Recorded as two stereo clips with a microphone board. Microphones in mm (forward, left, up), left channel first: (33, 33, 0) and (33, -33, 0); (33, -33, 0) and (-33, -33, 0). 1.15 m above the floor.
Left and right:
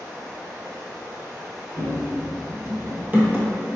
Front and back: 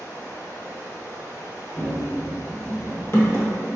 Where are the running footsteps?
75° right, 1.6 m; by 3.5 s 25° right, 1.5 m.